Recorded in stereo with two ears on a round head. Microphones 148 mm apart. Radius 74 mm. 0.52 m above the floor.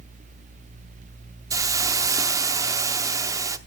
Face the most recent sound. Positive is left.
turn(degrees=-20)  # may be behind; listen again after turning